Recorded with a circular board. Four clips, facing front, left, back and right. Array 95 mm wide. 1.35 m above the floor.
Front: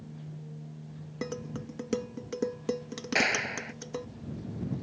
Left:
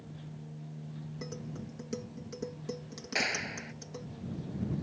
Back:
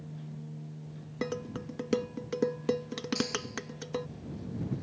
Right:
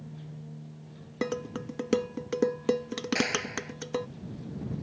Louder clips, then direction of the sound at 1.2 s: Right 12 dB, back 2 dB; 100° right.